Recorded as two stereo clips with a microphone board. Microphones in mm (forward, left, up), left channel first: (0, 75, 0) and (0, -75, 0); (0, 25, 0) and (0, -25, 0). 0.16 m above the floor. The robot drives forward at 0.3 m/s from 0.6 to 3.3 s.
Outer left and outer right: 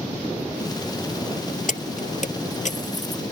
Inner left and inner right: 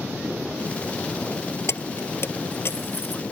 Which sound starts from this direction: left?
Keys jangling, at 1.7 s.